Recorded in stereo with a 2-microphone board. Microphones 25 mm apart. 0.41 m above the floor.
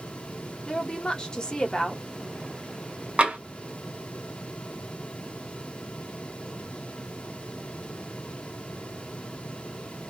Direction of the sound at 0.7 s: 30° left (ahead or behind).